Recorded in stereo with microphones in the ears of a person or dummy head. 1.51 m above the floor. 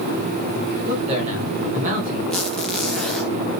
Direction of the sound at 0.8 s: 35° right (ahead or behind).